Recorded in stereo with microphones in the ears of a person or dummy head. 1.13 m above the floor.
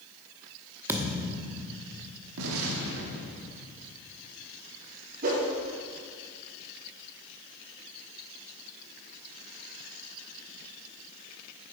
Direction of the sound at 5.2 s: 50° right (ahead or behind).